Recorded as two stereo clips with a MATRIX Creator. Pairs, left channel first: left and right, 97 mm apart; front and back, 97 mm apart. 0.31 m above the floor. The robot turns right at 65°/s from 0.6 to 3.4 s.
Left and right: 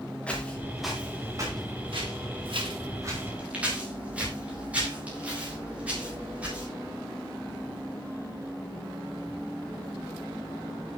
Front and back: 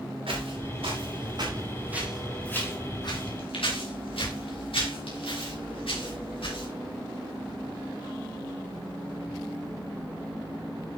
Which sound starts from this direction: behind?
Footsteps, at 0.3 s.